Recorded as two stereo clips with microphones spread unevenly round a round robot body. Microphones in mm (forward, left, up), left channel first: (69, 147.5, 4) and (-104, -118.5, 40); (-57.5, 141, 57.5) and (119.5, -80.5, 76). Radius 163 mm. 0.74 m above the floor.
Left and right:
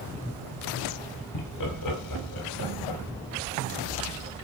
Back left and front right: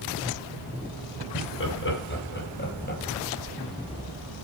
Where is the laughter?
85° left, 5 m; by 3.0 s 70° left, 4 m.